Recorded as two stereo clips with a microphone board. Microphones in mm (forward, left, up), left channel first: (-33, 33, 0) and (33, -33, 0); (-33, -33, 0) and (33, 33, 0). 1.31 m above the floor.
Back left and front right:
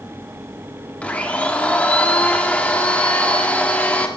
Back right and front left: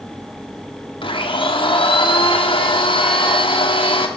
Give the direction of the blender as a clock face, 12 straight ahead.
5 o'clock.